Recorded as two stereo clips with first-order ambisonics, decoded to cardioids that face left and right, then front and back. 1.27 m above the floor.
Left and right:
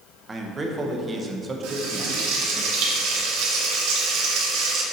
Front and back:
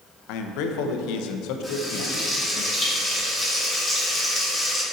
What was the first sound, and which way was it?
A man speaking, 15° right.